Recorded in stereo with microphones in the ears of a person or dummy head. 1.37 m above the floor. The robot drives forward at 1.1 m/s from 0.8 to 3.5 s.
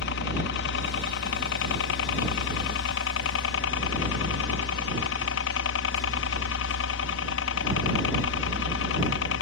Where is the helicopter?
60° left (ahead or behind); by 9.4 s 65° left (ahead or behind).